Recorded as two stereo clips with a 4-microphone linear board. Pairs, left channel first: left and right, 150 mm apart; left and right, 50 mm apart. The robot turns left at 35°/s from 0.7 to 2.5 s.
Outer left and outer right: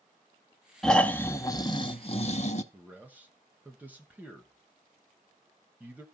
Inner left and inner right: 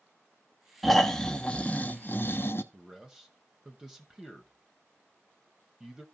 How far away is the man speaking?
About 1.0 m.